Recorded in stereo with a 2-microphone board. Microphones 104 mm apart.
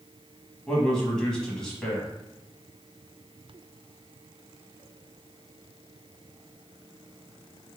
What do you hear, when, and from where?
0.7 s a man speaking: 5° left (ahead or behind), 1.1 m